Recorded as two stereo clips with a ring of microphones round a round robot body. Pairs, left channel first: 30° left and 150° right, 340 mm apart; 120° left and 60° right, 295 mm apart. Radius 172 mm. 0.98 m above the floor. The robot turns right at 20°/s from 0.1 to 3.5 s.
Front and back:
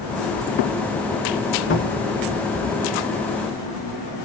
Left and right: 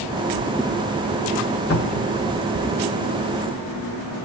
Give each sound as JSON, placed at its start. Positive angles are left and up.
{"t": 1.7, "sound": "a cupboard door", "azimuth_deg": 85, "distance_m": 1.7}